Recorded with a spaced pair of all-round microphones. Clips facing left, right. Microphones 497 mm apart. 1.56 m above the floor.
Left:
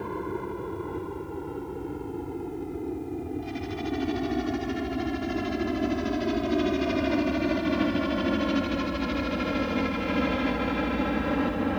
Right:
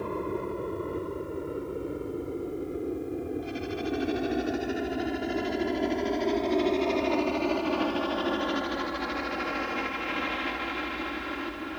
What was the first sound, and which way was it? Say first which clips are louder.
A helicopter: right 1 dB; 5° left (ahead or behind).